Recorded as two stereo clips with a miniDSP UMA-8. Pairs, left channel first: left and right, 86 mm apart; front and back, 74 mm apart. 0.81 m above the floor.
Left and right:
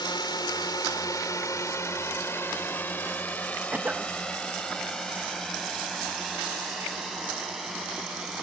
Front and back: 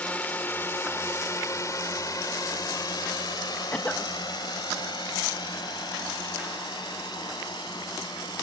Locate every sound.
0.0 s a drone: 70° left; by 8.4 s 5° right
3.7 s a cough: 40° right